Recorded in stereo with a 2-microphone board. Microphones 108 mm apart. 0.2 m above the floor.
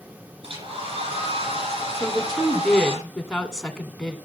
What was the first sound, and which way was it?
A hair dryer, 60° right (ahead or behind).